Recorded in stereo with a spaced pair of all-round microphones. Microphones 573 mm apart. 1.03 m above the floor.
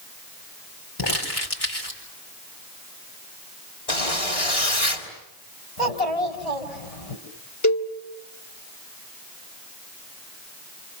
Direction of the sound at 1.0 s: 40° left (ahead or behind).